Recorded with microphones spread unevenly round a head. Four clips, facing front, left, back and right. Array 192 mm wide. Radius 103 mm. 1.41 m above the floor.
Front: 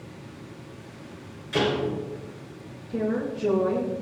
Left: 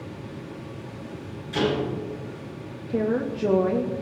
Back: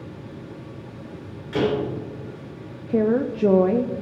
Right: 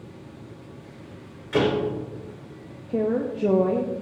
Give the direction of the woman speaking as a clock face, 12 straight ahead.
6 o'clock.